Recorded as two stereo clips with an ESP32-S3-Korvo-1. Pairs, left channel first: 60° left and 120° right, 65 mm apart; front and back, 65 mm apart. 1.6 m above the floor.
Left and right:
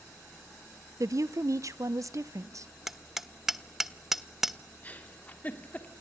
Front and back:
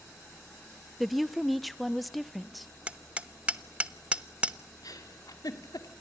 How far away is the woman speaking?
About 0.9 m.